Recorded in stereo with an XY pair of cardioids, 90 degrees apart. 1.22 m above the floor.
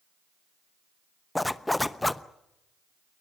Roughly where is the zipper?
Ahead.